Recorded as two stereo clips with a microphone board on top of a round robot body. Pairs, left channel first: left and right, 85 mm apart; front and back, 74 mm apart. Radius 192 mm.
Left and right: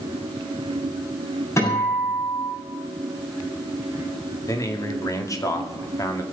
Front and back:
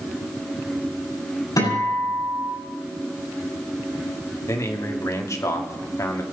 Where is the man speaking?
45° left, 2.5 m.